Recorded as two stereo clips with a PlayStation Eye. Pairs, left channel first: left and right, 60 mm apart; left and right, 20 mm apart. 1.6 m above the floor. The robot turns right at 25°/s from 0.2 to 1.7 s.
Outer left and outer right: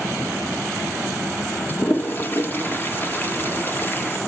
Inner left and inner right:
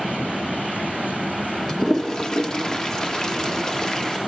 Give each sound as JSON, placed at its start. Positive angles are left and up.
{"t": 1.7, "sound": "a toilet flushing", "side_deg": 35, "distance_m": 0.6}